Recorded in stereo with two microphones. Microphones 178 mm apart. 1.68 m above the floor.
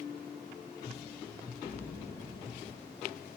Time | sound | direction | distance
1.6 | an explosion | 70° left (ahead or behind) | 2 m